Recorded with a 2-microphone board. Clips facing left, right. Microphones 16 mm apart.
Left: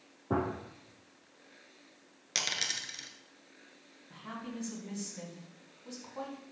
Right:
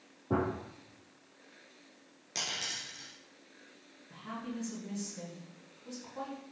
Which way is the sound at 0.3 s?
20° left (ahead or behind).